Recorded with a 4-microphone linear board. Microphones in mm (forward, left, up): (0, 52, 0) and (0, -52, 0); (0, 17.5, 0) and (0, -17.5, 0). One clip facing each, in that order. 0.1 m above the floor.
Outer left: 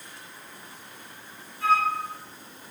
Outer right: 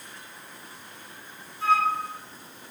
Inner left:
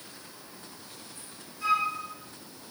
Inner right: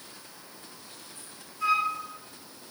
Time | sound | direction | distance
1.6 | a flute | 20° right (ahead or behind) | 1.9 m